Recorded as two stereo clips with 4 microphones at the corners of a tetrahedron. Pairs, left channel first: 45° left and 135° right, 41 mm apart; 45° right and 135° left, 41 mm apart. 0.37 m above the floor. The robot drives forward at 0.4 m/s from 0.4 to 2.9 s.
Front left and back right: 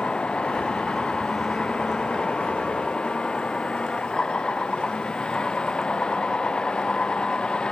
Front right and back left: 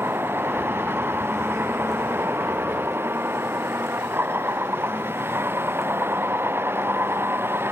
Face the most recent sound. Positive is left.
turn(degrees=115)